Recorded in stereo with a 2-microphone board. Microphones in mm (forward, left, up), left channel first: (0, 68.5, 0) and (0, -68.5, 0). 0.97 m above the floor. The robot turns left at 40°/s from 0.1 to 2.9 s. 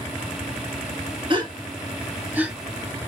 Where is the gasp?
35° right (ahead or behind), 0.9 m; by 2.5 s 10° right (ahead or behind), 0.9 m.